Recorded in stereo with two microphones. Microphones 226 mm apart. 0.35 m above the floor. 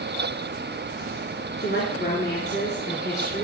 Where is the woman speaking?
50° left (ahead or behind), 4.5 m.